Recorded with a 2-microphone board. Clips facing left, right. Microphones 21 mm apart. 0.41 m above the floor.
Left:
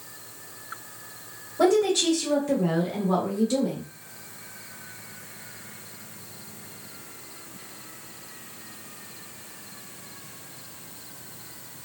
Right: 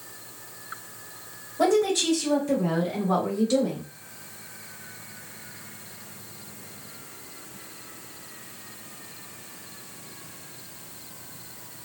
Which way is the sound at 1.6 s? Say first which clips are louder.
Left 1 dB; 25° left (ahead or behind).